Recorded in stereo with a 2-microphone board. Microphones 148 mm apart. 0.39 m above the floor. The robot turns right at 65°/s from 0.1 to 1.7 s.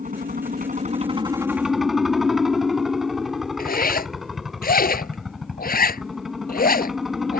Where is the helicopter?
105° right; by 7.4 s straight ahead.